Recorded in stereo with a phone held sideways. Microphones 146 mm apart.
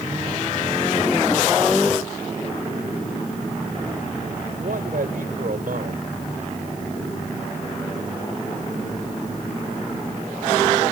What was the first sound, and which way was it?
A man speaking, 85° right.